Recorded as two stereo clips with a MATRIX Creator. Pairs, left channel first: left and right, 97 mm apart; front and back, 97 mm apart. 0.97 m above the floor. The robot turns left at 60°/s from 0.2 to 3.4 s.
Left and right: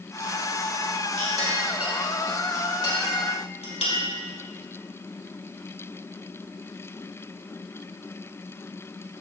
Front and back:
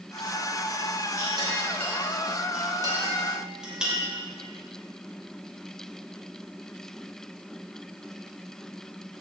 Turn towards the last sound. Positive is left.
turn(degrees=95)